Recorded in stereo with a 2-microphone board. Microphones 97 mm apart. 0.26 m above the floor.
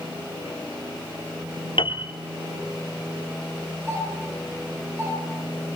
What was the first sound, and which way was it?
A piano, 65° left (ahead or behind).